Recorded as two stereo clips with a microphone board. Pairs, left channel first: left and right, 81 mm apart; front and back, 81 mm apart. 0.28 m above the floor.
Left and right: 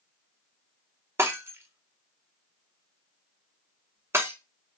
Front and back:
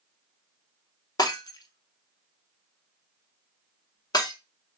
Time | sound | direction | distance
1.2 | breaking glass | 35° right | 0.6 m